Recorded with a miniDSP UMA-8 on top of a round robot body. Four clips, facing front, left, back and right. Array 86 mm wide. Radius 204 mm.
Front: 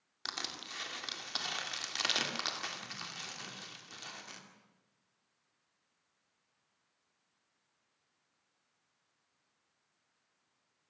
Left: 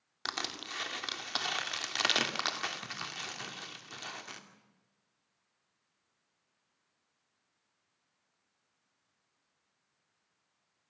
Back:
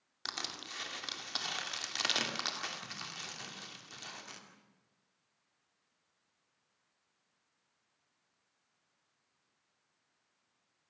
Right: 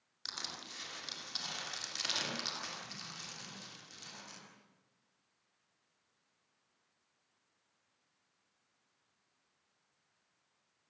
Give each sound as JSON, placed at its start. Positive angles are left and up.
{"t": 0.2, "sound": "crushing", "azimuth_deg": 90, "distance_m": 2.5}